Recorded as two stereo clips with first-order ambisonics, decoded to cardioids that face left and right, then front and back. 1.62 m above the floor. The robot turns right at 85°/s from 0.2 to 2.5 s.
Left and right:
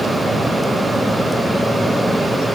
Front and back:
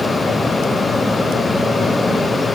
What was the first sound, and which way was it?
Only background noise.